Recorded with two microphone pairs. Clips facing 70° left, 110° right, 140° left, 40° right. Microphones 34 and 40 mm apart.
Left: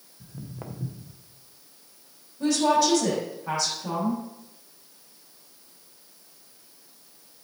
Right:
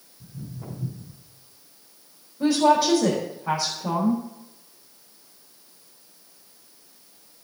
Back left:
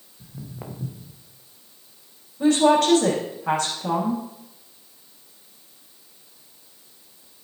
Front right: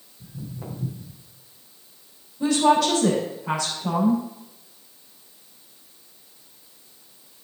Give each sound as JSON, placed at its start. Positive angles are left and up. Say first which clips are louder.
{"t": 0.2, "sound": "footsteps", "louder": "right 1 dB, front right 1 dB", "azimuth_deg": 95, "distance_m": 2.5}
{"t": 2.4, "sound": "a woman speaking", "louder": "right 3 dB, back left 2 dB", "azimuth_deg": -175, "distance_m": 4.0}